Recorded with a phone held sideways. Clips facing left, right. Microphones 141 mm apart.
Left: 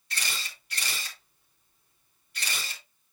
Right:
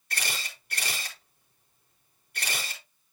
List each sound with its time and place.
0.1 s a camera shutter: 55° right (ahead or behind), 3.5 m